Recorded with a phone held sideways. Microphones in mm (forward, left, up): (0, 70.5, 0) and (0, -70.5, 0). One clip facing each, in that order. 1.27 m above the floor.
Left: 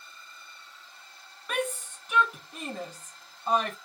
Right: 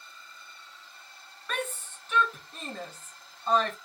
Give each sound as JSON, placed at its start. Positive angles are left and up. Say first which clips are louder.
{"t": 1.5, "sound": "a shout", "louder": "left 4 dB", "side_deg": 15, "distance_m": 1.4}